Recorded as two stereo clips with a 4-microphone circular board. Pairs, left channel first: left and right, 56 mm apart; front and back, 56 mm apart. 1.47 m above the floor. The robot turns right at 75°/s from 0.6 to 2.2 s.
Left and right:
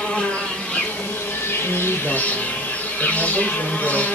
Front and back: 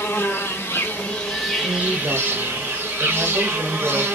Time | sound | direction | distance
0.0 | an insect | 20° left | 0.8 m
1.6 | a woman speaking | 160° left | 1.1 m